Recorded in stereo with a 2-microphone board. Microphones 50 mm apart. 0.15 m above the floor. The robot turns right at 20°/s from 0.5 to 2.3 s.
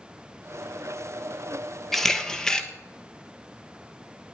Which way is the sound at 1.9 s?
5° left (ahead or behind).